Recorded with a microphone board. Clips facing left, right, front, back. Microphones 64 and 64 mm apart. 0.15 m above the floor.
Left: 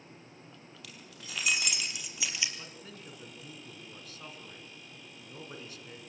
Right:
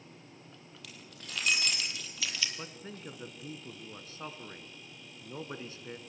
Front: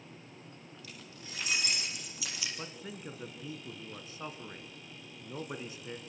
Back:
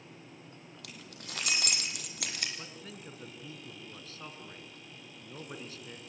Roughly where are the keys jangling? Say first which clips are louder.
Right 1 dB, back 3 dB; behind.